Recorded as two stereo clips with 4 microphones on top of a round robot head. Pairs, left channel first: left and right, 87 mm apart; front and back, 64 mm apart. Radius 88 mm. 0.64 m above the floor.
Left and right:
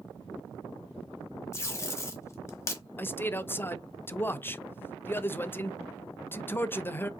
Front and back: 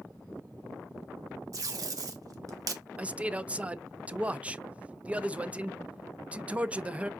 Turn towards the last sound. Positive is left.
turn(degrees=130)